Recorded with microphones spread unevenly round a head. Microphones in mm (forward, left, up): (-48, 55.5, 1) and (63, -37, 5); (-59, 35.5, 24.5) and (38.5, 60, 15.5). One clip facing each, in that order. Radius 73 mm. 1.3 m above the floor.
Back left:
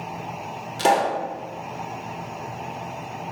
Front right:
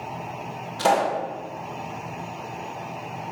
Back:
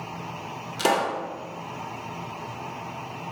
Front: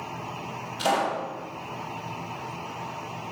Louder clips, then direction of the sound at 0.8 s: Back left 1 dB, back 1 dB; 155° right.